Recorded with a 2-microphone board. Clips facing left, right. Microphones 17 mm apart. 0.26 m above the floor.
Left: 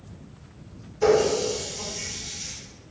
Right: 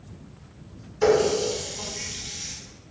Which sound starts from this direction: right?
A running tap, at 1.0 s.